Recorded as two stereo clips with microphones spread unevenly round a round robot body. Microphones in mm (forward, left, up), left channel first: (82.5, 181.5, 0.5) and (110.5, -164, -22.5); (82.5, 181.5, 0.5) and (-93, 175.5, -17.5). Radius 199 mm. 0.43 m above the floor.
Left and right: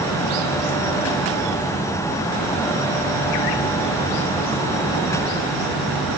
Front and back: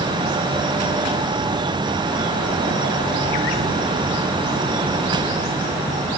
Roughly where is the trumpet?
No trumpet in this recording.